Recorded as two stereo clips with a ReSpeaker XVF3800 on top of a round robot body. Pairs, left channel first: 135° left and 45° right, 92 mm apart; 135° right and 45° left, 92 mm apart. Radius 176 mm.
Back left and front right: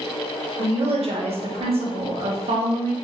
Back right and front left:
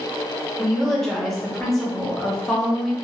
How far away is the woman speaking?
About 0.9 m.